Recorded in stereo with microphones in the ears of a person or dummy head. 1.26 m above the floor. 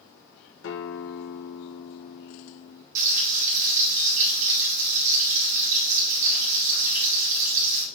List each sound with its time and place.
0.6 s a guitar: 70° left (ahead or behind), 1.6 m
3.0 s frying: 45° right (ahead or behind), 4 m